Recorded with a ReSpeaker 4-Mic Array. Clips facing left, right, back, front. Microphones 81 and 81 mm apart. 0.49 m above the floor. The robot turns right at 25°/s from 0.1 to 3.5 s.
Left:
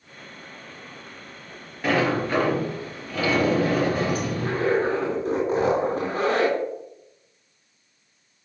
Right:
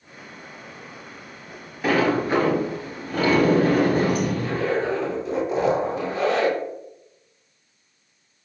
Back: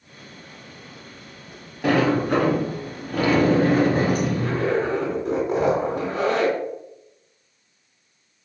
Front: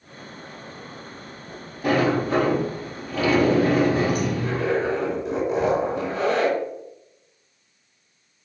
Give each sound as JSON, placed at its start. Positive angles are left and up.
{"t": 1.8, "sound": "a sliding door", "azimuth_deg": -175, "distance_m": 2.0}
{"t": 4.4, "sound": "a zipper", "azimuth_deg": 140, "distance_m": 3.0}